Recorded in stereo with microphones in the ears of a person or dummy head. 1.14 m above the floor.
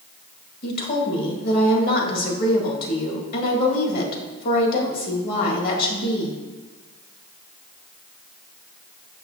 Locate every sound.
0.6 s a woman speaking: 55° left (ahead or behind), 1.8 m